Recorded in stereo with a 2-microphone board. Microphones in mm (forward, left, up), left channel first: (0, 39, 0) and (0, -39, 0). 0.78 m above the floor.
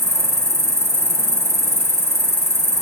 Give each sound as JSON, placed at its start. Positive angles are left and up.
{"t": 0.0, "sound": "an insect", "side_deg": 35, "distance_m": 2.5}